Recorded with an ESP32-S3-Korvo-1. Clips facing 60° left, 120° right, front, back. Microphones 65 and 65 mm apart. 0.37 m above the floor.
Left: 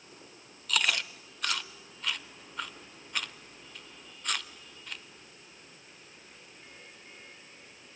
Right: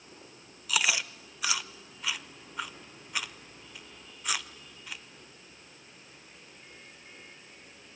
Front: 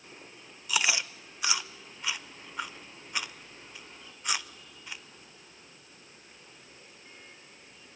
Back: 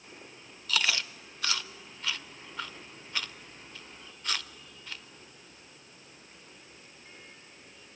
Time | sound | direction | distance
0.7 | chewing | 50° right | 0.7 m